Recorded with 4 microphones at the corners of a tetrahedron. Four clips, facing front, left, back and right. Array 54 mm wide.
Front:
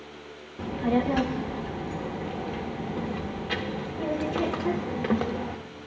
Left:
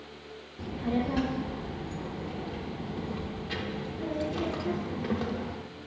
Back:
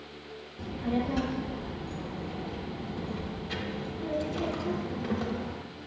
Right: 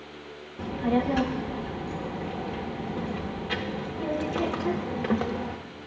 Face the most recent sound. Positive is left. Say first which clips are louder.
# right 5 dB, front 6 dB
turn(degrees=-35)